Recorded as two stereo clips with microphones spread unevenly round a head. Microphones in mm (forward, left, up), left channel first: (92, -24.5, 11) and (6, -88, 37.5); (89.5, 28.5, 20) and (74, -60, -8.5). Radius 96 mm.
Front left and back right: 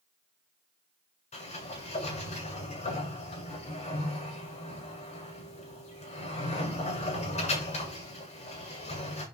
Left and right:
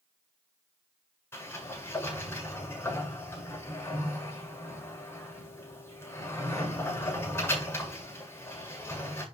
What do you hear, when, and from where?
1.3 s a sliding door: 25° left, 8 m